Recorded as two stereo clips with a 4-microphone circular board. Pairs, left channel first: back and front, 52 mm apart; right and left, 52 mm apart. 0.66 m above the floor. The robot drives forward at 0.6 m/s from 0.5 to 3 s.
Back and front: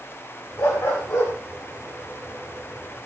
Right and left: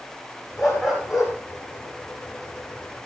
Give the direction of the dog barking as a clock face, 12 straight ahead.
6 o'clock.